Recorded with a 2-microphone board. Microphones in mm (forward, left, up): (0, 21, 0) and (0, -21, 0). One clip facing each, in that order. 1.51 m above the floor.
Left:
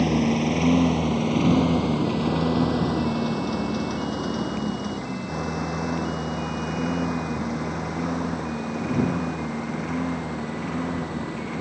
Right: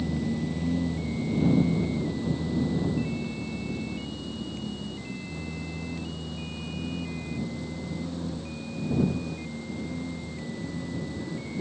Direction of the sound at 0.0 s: 70° left (ahead or behind).